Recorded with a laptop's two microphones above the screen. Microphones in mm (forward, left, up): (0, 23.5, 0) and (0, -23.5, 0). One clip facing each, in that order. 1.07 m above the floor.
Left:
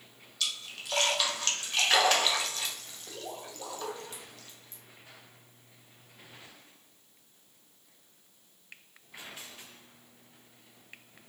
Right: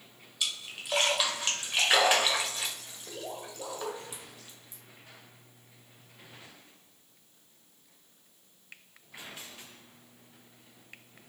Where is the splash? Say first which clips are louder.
Even; 15° right (ahead or behind), 1.3 m.